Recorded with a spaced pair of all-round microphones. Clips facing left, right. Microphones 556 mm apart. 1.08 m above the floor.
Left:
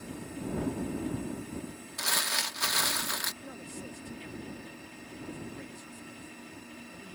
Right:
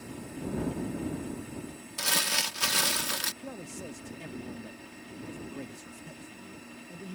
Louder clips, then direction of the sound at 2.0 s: Right 5 dB; 55° right (ahead or behind).